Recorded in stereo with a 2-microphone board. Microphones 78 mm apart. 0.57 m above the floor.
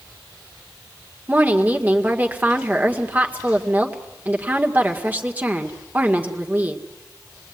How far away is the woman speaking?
About 2.0 m.